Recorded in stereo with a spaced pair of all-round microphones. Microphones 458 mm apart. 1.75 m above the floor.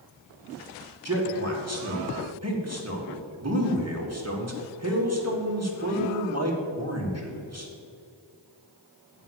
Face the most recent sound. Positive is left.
turn(degrees=-35)  # may be behind; listen again after turning